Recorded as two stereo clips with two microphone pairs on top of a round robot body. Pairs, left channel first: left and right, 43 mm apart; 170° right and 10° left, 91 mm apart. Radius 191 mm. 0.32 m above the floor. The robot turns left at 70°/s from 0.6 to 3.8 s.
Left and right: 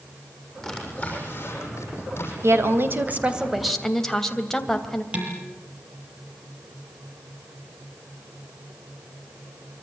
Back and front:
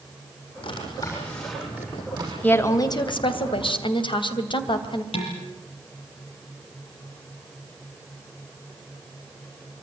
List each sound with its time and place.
0.6 s a drawer: 165° left, 7.5 m; by 2.3 s 45° left, 7.5 m
2.4 s a woman speaking: 95° right, 3 m; by 5.0 s 170° left, 3 m
5.1 s dishes clattering: 155° right, 7 m